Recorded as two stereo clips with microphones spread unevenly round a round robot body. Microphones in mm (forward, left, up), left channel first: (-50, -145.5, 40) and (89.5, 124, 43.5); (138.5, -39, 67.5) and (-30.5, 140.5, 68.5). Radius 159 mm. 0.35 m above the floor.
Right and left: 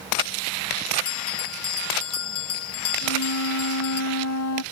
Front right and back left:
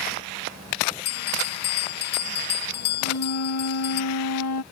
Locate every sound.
1.1 s a bell: 85° right
3.0 s a flute: 80° right